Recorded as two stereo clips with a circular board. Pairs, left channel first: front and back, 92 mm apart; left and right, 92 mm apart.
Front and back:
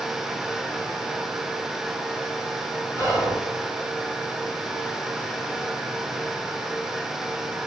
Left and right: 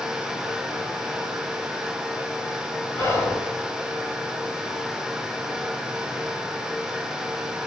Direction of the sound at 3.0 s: 150° left.